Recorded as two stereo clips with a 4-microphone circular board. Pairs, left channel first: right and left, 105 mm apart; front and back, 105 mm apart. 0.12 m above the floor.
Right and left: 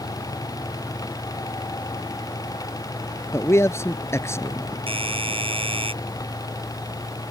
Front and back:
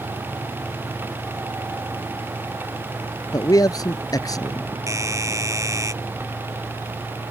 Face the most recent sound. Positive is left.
turn(degrees=120)